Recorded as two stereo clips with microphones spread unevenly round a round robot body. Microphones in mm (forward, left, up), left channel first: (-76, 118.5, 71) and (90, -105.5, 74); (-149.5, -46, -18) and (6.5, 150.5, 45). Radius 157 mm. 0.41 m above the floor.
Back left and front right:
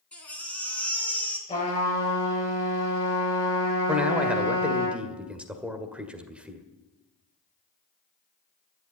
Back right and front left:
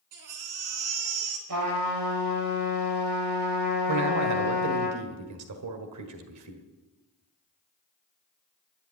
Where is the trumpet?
60° left, 7 m.